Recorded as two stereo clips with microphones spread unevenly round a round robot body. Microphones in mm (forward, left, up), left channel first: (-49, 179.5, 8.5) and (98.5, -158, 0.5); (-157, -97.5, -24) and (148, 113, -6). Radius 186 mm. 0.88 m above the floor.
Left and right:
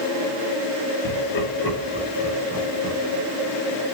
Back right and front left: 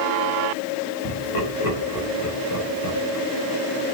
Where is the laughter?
Straight behind, 4.5 m; by 3.9 s 160° left, 5 m.